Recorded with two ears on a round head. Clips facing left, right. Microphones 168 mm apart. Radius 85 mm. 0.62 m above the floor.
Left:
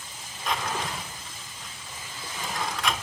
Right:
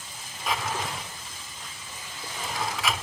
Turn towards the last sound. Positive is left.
turn(degrees=0)  # may be behind; listen again after turning